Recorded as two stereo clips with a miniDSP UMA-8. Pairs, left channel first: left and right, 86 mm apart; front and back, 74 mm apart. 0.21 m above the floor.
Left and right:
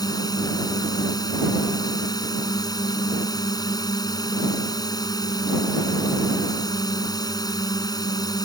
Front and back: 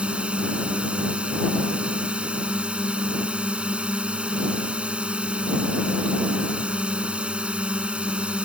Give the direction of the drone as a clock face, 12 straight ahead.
8 o'clock.